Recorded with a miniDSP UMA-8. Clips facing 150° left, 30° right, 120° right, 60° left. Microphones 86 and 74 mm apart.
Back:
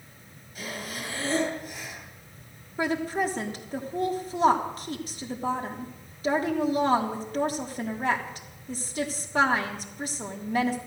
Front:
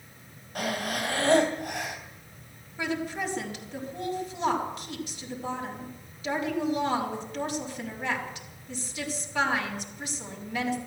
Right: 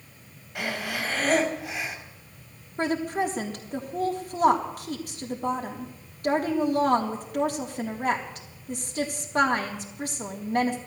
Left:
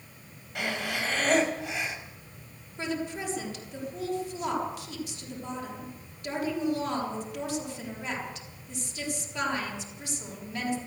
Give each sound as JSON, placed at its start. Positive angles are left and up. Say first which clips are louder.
{"t": 0.6, "sound": "breathing", "louder": "front 6 dB, right 1 dB", "azimuth_deg": -30, "distance_m": 3.0}
{"t": 2.8, "sound": "a woman speaking", "louder": "back 4 dB, right 7 dB", "azimuth_deg": -160, "distance_m": 3.5}